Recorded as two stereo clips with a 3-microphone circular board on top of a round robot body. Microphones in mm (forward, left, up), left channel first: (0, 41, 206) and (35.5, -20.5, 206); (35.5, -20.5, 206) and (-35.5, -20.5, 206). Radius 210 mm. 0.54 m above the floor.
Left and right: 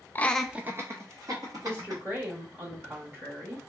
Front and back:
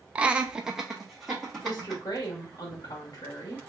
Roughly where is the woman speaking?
Ahead.